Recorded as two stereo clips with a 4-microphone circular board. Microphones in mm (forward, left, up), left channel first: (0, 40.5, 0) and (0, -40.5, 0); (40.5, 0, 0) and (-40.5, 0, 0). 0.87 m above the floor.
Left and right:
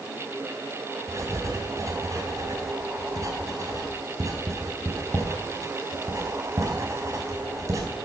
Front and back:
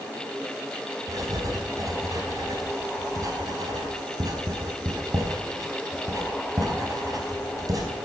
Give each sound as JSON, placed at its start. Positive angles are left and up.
{"t": 1.1, "sound": "writing", "azimuth_deg": -140, "distance_m": 4.0}